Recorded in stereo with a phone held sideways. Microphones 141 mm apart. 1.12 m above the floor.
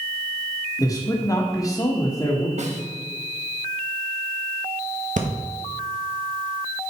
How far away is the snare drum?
About 1.1 m.